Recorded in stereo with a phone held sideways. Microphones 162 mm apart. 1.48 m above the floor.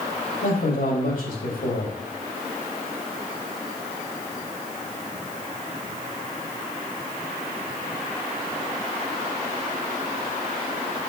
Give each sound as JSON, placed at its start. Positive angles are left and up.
{"t": 0.4, "sound": "a man speaking", "side_deg": 80, "distance_m": 3.0}